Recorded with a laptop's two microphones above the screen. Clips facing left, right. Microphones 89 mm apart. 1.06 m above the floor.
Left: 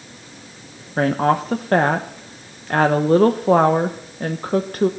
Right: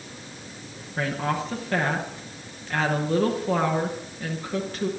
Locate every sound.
1.0 s a woman speaking: 50° left (ahead or behind), 1.0 m